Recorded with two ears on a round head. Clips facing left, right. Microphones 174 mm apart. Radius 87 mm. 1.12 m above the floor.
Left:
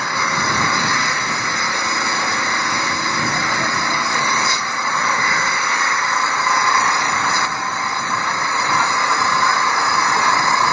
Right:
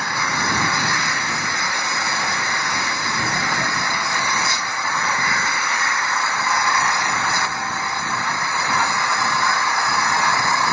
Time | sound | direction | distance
0.0 | an engine running | 65° left (ahead or behind) | ?